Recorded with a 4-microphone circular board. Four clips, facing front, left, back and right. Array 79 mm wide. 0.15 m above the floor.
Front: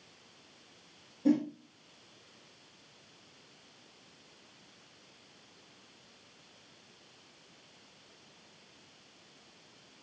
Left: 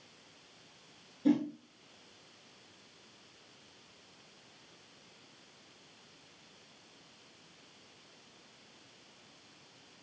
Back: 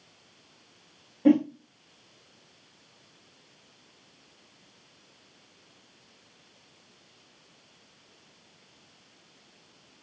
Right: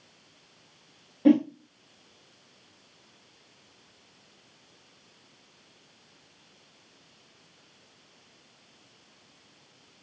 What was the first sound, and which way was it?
A whoosh, 125° right.